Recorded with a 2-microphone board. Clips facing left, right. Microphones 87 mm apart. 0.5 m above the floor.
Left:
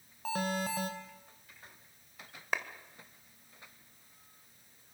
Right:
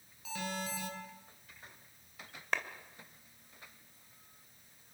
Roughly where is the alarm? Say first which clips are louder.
Left 6 dB; left.